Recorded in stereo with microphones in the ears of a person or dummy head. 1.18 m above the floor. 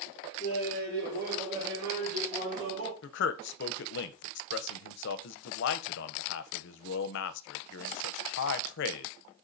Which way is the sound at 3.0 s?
65° left (ahead or behind).